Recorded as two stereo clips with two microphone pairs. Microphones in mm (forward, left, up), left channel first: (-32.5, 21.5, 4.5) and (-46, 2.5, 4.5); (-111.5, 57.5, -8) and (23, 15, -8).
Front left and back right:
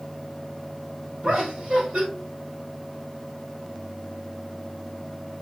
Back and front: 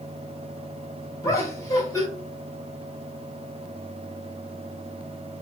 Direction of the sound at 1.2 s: 135° right.